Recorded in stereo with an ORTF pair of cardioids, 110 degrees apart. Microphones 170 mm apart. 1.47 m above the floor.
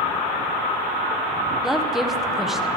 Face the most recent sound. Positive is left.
turn(degrees=0)